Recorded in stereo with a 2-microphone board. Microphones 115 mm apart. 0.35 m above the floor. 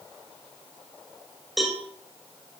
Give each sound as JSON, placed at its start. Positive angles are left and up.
{"t": 1.6, "sound": "a cowbell", "side_deg": 0, "distance_m": 2.0}